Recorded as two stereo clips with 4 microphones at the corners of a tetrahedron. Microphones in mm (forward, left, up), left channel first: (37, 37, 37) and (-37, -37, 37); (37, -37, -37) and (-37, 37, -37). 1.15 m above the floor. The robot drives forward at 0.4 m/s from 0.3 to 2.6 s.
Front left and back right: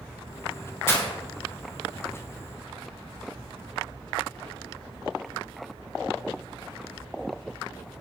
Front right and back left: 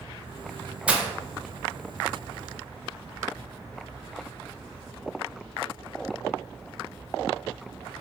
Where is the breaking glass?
70° left, 0.6 m; by 1.1 s 85° left, 0.6 m.